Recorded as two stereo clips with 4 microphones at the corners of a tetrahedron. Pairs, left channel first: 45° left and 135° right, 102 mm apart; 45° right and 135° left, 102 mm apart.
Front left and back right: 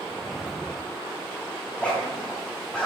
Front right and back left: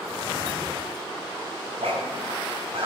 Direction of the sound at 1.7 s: 125° left.